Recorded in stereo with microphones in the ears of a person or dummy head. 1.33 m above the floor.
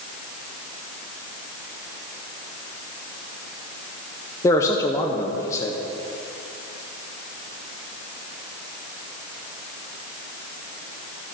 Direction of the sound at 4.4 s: 20° left (ahead or behind).